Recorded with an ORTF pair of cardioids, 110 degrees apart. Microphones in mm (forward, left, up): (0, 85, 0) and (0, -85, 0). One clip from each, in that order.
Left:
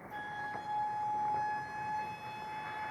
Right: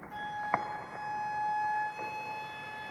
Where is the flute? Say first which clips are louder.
Right 7 dB; 15° right, 2.5 m.